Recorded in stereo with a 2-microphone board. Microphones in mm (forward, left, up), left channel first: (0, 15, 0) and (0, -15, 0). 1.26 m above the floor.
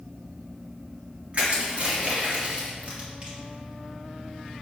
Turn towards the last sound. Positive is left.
turn(degrees=-45)  # may be behind; listen again after turning